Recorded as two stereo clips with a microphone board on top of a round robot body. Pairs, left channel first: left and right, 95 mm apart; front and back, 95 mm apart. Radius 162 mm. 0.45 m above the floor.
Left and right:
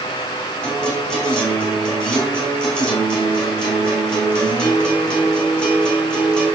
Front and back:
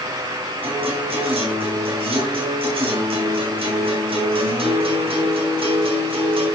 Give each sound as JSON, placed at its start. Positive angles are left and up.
{"t": 0.6, "sound": "a guitar", "azimuth_deg": 170, "distance_m": 3.5}